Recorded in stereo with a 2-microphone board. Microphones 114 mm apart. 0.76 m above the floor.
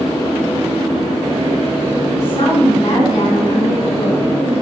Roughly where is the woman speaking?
Left.